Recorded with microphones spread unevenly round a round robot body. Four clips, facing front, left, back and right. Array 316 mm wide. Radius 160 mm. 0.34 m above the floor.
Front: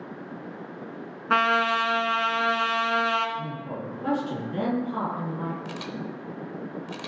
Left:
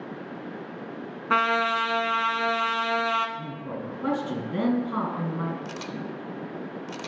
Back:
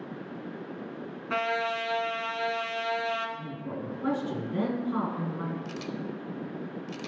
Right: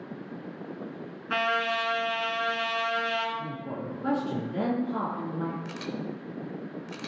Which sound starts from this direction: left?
A man speaking, at 3.4 s.